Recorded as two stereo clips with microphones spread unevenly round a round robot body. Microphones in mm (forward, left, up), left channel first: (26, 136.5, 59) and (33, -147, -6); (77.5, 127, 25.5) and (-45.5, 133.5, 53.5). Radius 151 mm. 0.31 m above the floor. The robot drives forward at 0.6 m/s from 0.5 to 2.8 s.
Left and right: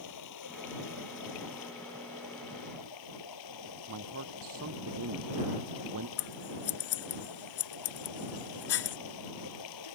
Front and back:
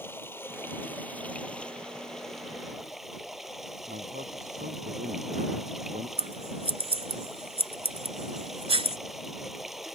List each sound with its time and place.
0.0 s running water: 70° left; by 9.9 s 90° left
3.9 s a man speaking: 130° right
6.2 s scissors: 135° left